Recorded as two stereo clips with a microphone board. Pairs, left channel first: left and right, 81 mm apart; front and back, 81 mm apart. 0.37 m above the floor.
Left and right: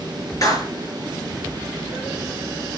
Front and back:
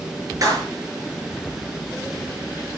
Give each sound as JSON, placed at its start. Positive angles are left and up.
{"t": 0.4, "sound": "a clap", "azimuth_deg": 135, "distance_m": 5.5}